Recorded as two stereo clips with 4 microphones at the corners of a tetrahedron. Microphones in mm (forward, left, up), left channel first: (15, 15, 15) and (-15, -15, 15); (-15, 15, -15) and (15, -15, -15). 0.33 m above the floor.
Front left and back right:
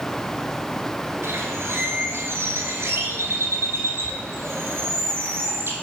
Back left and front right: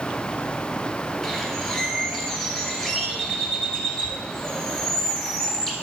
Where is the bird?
145° right, 1.9 m.